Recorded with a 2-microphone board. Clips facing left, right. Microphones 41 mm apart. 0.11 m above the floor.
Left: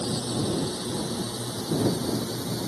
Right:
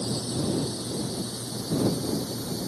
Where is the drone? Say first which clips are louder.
Left 1 dB; 55° left (ahead or behind).